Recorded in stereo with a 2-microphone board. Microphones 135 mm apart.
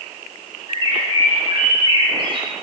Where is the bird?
40° right (ahead or behind), 3.5 m.